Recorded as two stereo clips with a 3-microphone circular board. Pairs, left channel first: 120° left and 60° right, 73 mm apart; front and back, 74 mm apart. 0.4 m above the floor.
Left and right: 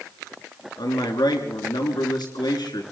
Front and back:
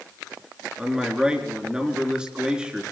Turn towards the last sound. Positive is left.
turn(degrees=100)